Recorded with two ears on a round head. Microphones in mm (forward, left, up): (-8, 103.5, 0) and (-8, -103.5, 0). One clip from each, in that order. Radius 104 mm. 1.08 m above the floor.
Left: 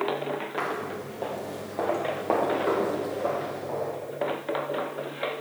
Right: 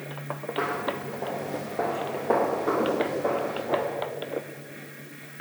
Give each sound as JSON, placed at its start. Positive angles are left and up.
{"t": 0.6, "sound": "footsteps", "side_deg": 60, "distance_m": 2.0}